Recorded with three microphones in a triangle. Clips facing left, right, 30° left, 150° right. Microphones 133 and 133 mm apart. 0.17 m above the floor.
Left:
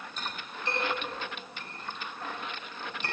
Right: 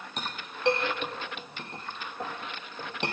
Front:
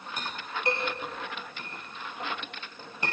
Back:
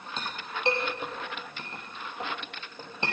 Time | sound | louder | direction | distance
0.2 | a clink | right 2 dB, even | 85° right | 3 m